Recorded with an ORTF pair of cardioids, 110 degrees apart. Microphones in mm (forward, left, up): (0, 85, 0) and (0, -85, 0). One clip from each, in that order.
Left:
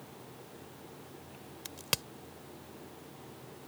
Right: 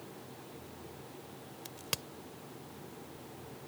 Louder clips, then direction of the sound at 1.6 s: Left 4 dB; 30° left.